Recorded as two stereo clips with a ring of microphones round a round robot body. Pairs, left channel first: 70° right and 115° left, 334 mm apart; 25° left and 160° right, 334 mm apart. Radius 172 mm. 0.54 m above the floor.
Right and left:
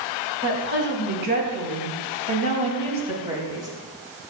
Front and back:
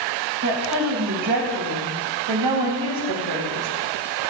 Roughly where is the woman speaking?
Behind.